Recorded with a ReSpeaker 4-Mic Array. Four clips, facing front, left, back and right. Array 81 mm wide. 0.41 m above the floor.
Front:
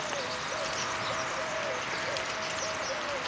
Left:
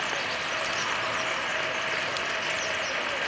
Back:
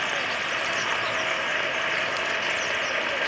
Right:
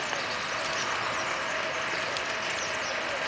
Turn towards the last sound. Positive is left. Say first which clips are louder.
# left 1 dB, back 6 dB
turn(degrees=170)